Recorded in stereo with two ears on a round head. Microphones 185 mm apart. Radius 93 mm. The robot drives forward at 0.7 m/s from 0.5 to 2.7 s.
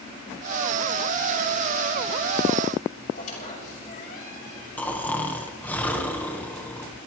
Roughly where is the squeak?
Left.